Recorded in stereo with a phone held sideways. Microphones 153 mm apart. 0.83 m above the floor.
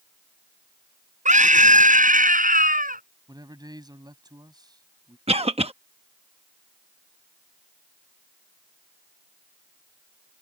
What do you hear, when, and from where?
1.2 s a scream: 55° right (ahead or behind); by 3.0 s 65° right (ahead or behind)
3.3 s a man speaking: 25° right (ahead or behind)
5.3 s a cough: 40° right (ahead or behind)